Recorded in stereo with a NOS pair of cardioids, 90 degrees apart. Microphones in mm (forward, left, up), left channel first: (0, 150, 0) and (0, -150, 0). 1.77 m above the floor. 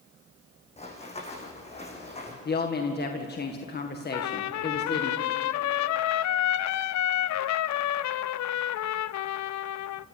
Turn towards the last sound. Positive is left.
turn(degrees=70)